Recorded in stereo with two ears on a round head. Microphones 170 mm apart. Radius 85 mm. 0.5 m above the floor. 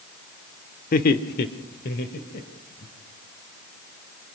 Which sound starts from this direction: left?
Laughter, at 0.9 s.